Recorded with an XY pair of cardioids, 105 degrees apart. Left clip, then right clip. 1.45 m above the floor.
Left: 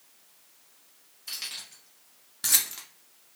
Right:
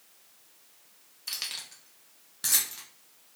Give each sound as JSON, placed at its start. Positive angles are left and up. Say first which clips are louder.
{"t": 1.3, "sound": "keys jangling", "louder": "right 1 dB", "azimuth_deg": -40, "distance_m": 1.1}